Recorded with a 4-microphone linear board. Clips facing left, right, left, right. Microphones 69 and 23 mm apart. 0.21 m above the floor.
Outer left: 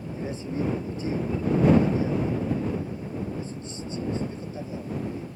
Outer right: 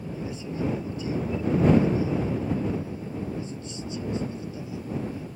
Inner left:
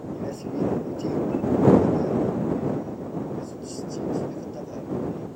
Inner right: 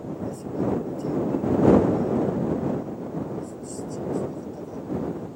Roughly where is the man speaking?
Left.